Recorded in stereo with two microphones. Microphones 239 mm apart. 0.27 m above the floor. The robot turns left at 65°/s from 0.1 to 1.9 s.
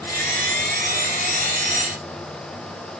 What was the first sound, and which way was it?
Only background noise.